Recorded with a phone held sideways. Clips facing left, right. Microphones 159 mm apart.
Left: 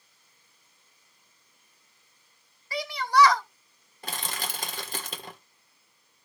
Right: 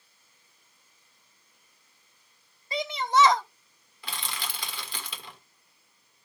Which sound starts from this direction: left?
Crushing, at 4.0 s.